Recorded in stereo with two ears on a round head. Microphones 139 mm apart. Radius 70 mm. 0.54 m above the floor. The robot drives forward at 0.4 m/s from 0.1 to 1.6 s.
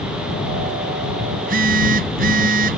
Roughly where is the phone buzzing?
Right.